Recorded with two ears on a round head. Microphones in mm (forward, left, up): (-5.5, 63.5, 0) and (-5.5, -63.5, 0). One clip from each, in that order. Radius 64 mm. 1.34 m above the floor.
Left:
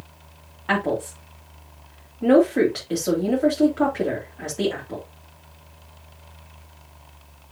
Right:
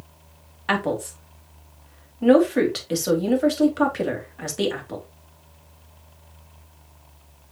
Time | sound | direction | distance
0.7 | a woman speaking | 70° right (ahead or behind) | 3 m